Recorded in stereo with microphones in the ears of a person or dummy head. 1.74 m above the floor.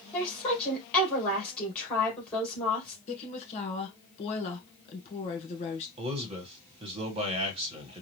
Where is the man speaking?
30° right (ahead or behind), 1.4 m.